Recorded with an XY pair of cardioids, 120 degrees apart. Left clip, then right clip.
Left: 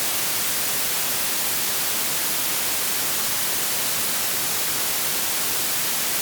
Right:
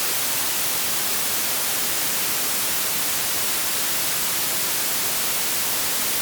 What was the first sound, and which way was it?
Only background noise.